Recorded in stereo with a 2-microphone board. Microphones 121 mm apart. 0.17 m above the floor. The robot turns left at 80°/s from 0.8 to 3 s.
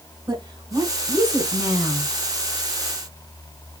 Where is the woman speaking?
65° right, 1.7 m; by 2.1 s 170° right, 1.7 m.